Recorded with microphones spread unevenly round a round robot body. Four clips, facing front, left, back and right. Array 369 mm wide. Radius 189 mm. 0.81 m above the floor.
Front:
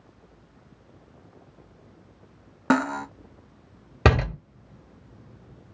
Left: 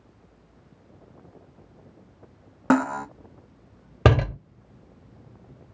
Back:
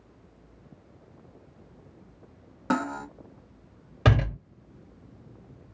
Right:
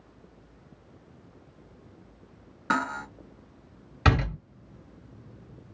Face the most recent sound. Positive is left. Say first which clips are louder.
# left 5 dB, front 3 dB
turn(degrees=45)